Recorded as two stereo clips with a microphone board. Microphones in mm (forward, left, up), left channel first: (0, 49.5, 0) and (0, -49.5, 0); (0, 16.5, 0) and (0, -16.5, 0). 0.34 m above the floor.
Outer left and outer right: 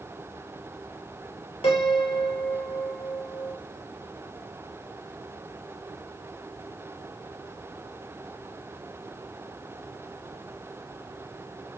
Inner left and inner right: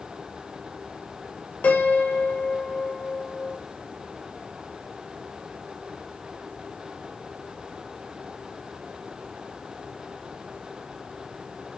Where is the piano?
90° left, 0.8 m.